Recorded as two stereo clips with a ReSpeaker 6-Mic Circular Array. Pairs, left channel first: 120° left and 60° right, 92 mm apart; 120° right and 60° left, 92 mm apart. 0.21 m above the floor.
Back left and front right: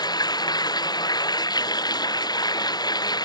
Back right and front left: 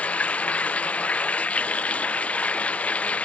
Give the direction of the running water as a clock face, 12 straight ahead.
7 o'clock.